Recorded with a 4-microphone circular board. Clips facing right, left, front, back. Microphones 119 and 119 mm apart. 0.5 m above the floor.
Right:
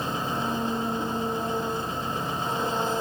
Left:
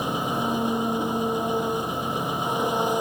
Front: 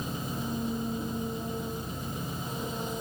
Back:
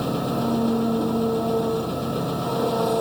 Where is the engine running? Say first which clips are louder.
Left 3 dB, back 11 dB; 165° left.